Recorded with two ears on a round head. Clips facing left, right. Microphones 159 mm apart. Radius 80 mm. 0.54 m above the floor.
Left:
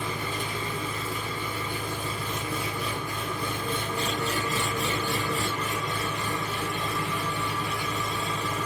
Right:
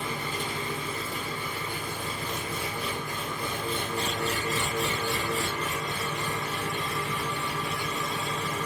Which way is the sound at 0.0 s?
60° left (ahead or behind).